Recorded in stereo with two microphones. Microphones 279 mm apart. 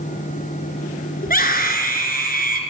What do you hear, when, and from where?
1.2 s a scream: 30° left (ahead or behind), 1.8 m